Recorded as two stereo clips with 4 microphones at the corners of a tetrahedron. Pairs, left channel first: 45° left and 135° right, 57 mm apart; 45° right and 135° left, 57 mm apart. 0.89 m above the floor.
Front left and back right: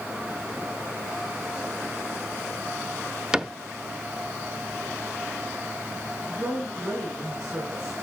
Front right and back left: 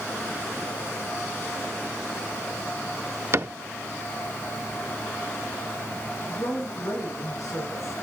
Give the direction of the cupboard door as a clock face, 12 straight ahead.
7 o'clock.